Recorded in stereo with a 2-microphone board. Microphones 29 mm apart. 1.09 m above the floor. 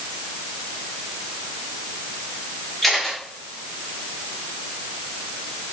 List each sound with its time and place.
2.8 s a camera shutter: centre (ahead or behind), 2.5 m